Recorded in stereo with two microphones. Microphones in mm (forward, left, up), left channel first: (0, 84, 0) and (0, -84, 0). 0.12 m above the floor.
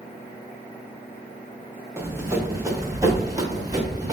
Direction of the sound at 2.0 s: 15° right (ahead or behind).